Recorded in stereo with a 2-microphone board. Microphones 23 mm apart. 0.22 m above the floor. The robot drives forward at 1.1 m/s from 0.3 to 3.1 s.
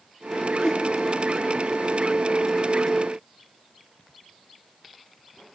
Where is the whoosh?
35° left (ahead or behind), 0.6 m; by 0.8 s 25° left (ahead or behind), 0.9 m.